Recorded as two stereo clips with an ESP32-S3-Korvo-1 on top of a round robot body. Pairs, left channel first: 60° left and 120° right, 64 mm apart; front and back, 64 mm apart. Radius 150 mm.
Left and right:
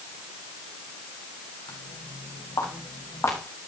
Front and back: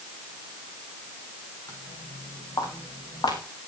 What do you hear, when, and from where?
1.7 s footsteps: 45° left, 3.5 m; by 3.4 s 15° left, 3 m